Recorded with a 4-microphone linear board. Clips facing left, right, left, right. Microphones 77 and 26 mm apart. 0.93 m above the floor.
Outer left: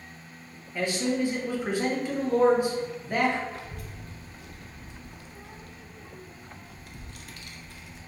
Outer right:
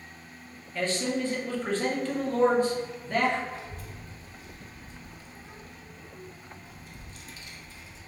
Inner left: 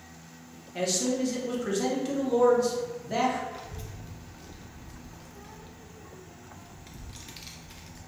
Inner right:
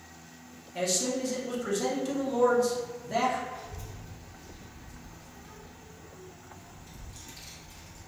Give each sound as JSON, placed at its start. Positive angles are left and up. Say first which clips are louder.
{"t": 0.8, "sound": "a man speaking", "louder": "outer left 2 dB, inner left 2 dB", "side_deg": 15, "distance_m": 0.5}
{"t": 3.5, "sound": "a child speaking", "louder": "even, even", "side_deg": 60, "distance_m": 0.5}